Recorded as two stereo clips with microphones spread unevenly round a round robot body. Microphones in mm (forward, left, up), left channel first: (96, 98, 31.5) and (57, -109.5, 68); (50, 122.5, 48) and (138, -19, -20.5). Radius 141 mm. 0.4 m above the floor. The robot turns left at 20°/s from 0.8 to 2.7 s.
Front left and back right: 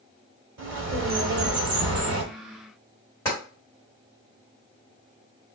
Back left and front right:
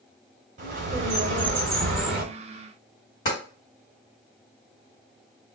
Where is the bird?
75° right, 1.1 m; by 2.2 s 105° right, 1.1 m.